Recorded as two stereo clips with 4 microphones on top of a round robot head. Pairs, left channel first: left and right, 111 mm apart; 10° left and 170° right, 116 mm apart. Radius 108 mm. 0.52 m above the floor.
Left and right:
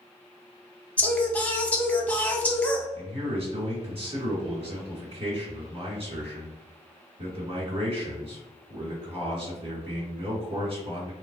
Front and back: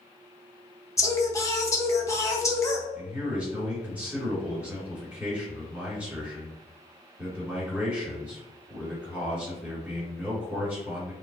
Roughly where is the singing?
Ahead left.